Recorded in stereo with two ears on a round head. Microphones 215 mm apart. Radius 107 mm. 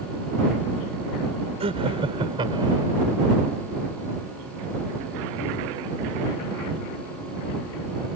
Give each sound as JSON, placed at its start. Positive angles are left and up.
{"t": 1.6, "sound": "laughter", "side_deg": -25}